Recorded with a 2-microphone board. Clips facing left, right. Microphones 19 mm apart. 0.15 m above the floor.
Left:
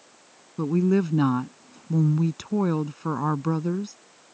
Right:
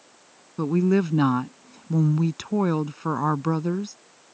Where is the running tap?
I don't hear a running tap.